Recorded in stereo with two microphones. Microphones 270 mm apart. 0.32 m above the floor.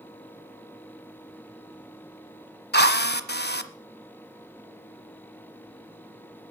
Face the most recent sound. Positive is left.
turn(degrees=40)  # may be behind; listen again after turning